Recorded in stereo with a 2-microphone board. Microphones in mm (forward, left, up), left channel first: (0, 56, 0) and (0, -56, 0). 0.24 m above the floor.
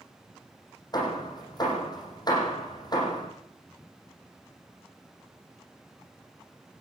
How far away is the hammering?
About 8 m.